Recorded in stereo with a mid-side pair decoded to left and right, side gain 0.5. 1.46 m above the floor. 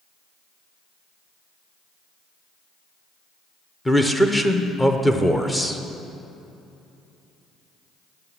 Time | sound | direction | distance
3.9 | a man speaking | 10° left | 0.7 m